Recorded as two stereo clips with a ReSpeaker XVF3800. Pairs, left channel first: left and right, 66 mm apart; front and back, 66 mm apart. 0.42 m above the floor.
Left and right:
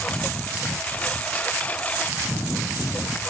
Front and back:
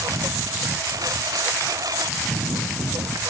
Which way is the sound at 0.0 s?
160° left.